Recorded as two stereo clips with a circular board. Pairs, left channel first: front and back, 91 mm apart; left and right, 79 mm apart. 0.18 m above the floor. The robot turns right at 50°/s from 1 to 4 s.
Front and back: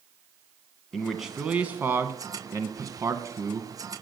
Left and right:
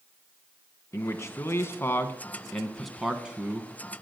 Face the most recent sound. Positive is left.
turn(degrees=-125)